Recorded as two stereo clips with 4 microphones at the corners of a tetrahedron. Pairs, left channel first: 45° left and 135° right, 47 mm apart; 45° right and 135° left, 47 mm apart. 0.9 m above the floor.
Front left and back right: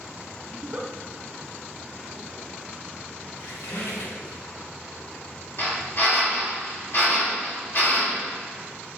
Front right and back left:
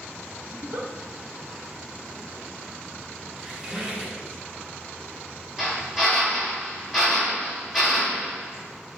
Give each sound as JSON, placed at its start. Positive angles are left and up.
{"t": 0.5, "sound": "a giggle", "azimuth_deg": 165, "distance_m": 0.8}
{"t": 3.4, "sound": "a squeak", "azimuth_deg": 60, "distance_m": 0.9}
{"t": 5.6, "sound": "a drill", "azimuth_deg": 50, "distance_m": 2.0}